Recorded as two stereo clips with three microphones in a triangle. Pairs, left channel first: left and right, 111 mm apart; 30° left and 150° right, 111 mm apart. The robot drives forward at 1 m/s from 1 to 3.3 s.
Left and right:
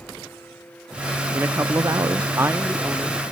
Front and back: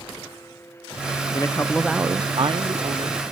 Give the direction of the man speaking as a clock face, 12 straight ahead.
1 o'clock.